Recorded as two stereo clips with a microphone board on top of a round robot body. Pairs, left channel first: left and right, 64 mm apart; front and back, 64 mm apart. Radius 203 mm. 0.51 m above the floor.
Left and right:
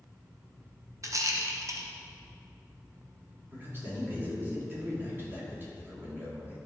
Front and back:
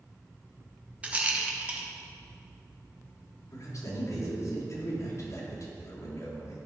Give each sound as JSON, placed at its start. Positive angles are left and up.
{"t": 1.0, "sound": "a rattle", "azimuth_deg": -115, "distance_m": 1.4}
{"t": 3.5, "sound": "a man speaking", "azimuth_deg": -35, "distance_m": 3.0}